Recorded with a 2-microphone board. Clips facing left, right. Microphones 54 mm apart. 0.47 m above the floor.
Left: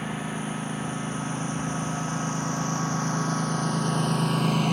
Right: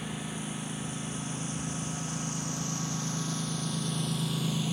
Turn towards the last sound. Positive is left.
turn(degrees=65)  # may be behind; listen again after turning